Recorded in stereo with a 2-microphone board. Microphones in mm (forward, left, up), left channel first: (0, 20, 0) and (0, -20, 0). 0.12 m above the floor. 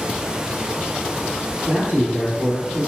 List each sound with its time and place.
1.7 s a man speaking: 40° right (ahead or behind), 1.8 m